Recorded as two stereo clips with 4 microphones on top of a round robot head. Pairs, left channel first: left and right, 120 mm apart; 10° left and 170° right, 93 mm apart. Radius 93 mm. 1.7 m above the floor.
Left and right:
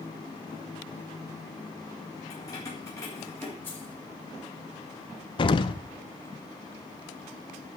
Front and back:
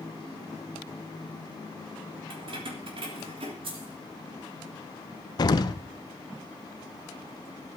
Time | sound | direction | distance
2.3 | keys jangling | 155° left | 3.5 m
3.6 | keys jangling | 165° left | 3.5 m
5.4 | an explosion | 50° left | 0.6 m